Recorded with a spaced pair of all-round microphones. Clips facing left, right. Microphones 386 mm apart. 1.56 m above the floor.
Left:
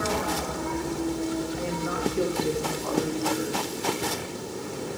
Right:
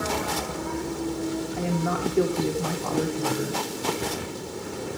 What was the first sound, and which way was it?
A woman speaking, 70° right (ahead or behind).